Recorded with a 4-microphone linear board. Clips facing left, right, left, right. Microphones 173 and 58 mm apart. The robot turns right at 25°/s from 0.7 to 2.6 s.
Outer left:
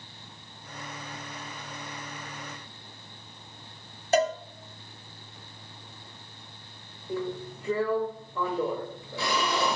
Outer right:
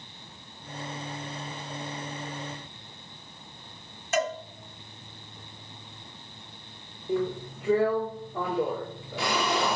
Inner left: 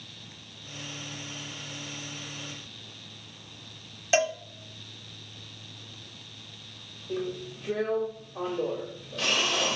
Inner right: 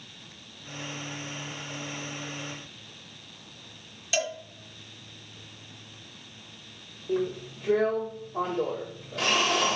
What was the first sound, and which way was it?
A cowbell, 35° left (ahead or behind).